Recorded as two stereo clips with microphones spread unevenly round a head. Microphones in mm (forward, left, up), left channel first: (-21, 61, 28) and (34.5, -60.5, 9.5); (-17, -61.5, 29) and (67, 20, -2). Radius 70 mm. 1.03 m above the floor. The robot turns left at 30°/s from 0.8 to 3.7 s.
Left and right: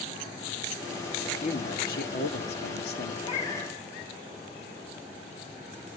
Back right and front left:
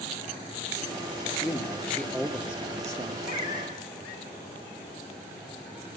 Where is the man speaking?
155° left, 2.5 m; by 3.1 s 105° left, 2.5 m.